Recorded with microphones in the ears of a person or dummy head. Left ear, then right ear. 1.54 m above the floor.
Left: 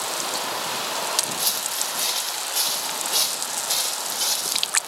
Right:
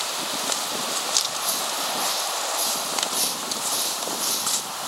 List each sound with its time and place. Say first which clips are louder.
1.4 s footsteps: even; 80° left, 8 m